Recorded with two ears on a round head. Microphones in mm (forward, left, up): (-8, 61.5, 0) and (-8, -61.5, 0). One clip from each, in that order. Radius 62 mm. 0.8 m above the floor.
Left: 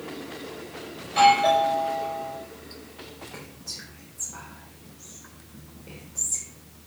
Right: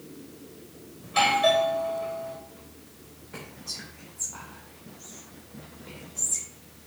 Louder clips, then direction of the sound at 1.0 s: Left 4 dB; 45° right (ahead or behind).